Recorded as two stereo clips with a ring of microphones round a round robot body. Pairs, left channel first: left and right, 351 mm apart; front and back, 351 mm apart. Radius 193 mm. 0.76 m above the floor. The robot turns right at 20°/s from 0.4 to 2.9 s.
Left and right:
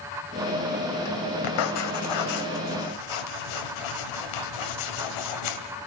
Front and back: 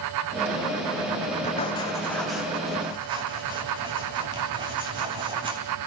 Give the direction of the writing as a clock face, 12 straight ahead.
10 o'clock.